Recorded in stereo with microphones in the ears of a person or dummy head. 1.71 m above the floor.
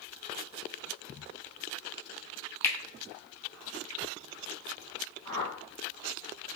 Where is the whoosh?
25° left (ahead or behind), 0.9 m.